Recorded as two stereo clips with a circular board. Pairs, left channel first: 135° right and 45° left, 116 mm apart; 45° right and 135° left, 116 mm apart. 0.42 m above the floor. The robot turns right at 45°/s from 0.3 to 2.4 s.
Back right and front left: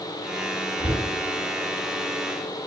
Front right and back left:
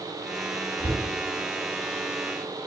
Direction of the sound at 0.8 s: 75° right.